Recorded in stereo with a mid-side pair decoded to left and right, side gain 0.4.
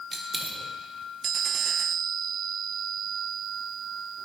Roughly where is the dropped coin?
Ahead right.